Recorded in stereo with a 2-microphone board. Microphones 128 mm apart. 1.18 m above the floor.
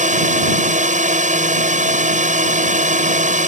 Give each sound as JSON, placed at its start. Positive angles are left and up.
{"t": 0.0, "sound": "a drone", "side_deg": -75}